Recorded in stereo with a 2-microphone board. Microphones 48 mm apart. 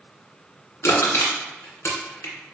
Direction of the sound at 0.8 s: 70° left (ahead or behind).